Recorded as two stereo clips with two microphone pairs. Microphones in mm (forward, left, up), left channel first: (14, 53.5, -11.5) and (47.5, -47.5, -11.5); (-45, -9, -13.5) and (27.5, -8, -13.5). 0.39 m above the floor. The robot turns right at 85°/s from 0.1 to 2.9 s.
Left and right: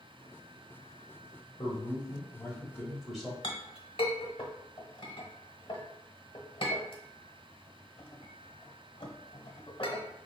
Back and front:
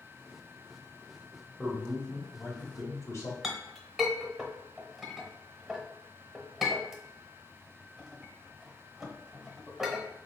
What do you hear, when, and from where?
1.6 s a man speaking: 90° left, 1.3 m; by 3.3 s 160° right, 1.3 m
3.4 s a clink: 90° left, 0.9 m